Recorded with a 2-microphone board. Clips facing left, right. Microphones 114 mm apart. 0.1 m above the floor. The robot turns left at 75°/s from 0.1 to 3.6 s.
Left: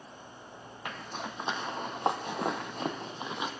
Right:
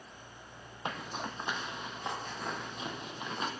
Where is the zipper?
25° right (ahead or behind), 1.1 m; by 3.5 s 5° left (ahead or behind), 1.1 m.